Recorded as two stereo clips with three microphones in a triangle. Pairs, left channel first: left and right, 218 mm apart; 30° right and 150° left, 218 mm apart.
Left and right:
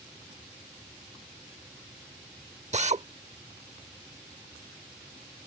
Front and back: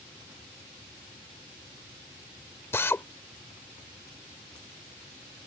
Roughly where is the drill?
Right.